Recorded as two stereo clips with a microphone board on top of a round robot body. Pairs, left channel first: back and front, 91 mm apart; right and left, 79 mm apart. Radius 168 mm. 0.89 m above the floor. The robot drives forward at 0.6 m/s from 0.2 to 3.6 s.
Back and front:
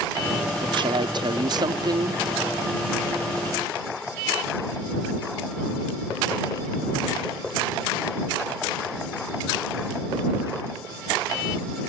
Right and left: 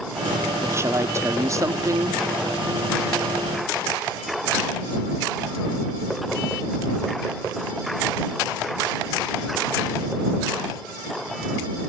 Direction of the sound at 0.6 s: 35° left.